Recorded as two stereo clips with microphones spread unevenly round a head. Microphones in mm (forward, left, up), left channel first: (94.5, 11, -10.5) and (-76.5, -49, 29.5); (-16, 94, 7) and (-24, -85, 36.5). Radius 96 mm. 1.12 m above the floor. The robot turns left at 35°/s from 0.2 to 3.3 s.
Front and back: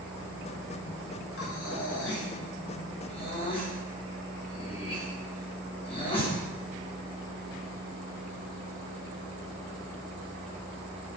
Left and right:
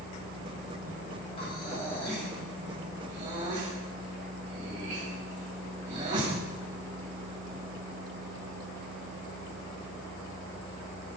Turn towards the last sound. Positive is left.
turn(degrees=-40)